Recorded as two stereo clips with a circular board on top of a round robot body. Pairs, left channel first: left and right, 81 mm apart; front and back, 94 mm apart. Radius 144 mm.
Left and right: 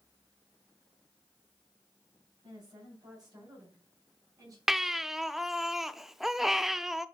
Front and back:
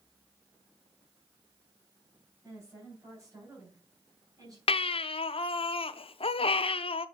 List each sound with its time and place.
2.4 s a woman speaking: 120° right, 4.5 m; by 4.6 s 130° right, 3.5 m
4.7 s a baby crying: 5° right, 0.5 m